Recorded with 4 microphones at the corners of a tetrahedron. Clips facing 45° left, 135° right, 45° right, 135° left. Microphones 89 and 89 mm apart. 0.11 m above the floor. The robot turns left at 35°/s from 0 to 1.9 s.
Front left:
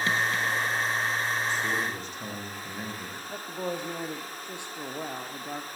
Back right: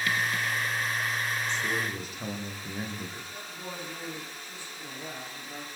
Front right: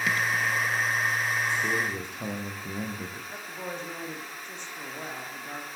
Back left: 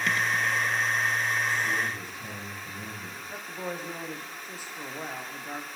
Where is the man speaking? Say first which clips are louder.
Front left 2 dB, front right 1 dB; 35° right, 8.5 m; by 3.2 s 50° right, 8.5 m.